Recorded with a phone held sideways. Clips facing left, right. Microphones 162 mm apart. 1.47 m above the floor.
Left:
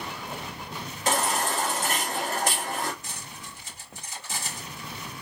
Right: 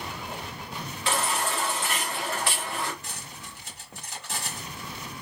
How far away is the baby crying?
About 1.0 m.